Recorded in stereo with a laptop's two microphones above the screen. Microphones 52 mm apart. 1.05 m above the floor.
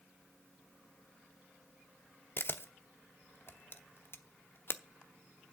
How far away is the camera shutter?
About 0.7 m.